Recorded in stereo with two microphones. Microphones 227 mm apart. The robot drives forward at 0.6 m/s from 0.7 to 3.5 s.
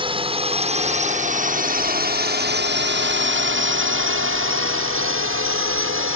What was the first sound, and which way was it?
A drone, 25° right (ahead or behind).